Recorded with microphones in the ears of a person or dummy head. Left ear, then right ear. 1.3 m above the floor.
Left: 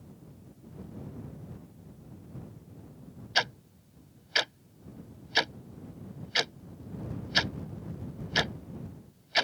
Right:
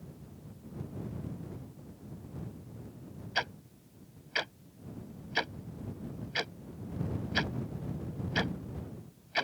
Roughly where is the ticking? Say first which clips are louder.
Left 5 dB; left.